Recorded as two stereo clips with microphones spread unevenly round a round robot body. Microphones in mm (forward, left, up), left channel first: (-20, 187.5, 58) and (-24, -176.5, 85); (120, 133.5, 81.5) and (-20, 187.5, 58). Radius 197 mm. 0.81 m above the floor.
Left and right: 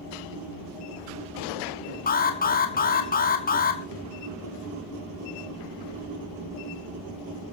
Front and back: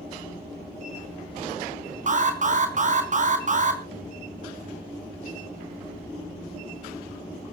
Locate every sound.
2.1 s an alarm: 150° left, 3 m